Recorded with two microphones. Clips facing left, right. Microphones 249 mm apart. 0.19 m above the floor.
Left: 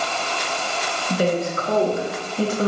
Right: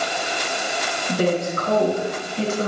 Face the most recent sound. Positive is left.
turn(degrees=-20)  # may be behind; listen again after turning